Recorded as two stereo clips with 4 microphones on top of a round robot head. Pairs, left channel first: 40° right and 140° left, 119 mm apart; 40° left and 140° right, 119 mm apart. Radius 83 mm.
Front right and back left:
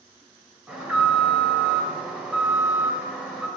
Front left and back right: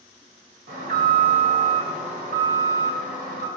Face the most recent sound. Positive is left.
turn(degrees=-140)